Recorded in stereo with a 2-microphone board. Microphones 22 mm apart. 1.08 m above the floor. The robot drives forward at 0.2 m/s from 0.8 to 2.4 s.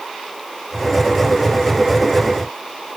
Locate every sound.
Only background noise.